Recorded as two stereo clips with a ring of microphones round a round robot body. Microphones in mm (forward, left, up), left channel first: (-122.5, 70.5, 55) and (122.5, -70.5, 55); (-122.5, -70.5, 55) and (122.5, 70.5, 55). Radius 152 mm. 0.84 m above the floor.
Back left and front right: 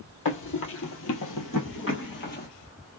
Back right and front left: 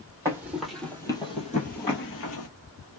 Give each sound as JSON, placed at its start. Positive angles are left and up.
{"t": 0.2, "sound": "running footsteps", "azimuth_deg": 110, "distance_m": 1.2}